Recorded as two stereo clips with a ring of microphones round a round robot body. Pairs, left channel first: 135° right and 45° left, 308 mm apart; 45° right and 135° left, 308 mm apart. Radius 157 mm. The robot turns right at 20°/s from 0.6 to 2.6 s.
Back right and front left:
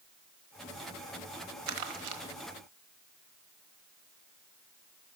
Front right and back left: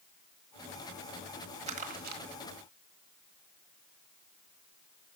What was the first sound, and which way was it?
Crumpling, 65° left.